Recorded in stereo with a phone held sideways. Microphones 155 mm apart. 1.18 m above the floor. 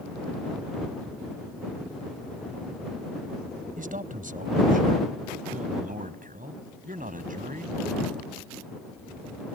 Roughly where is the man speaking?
Right.